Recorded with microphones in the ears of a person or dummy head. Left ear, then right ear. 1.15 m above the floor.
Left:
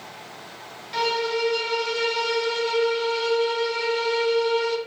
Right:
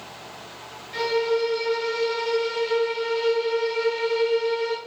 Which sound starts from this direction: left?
A violin, at 0.9 s.